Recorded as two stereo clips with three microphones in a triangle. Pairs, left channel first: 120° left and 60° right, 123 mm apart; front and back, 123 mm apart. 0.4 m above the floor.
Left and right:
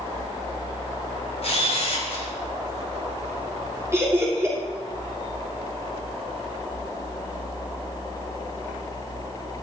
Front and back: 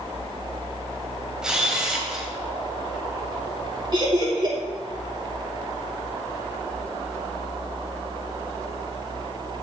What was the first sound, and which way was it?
A camera shutter, 100° left.